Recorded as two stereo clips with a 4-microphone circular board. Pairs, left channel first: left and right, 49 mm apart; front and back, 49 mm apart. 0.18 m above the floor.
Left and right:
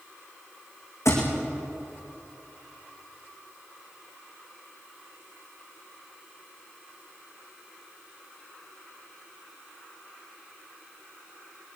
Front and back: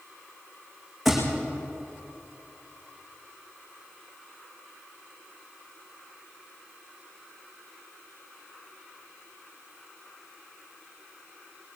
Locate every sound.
1.1 s a thud: 90° left, 5.5 m